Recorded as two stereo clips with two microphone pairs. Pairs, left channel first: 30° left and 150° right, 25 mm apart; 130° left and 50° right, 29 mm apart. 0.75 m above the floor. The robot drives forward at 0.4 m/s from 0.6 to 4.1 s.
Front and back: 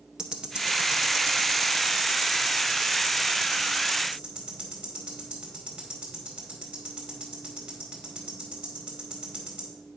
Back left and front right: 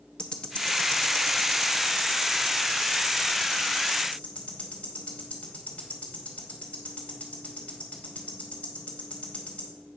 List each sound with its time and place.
0.2 s ticking: 175° left, 0.7 m; by 9.7 s straight behind, 2 m